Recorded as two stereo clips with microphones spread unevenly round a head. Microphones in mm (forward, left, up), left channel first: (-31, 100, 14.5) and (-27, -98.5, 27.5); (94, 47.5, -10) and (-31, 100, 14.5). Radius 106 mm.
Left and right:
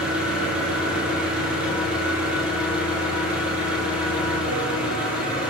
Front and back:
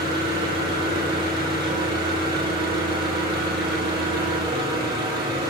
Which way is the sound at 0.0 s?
175° right.